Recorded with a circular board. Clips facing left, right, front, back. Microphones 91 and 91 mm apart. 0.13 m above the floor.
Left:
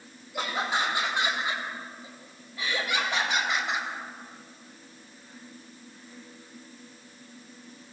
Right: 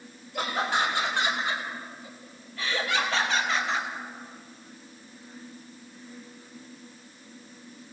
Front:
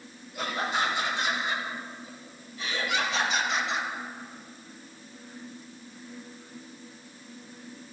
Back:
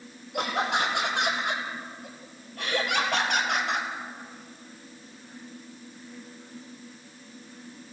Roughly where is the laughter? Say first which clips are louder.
Right 2 dB, back 3 dB; behind.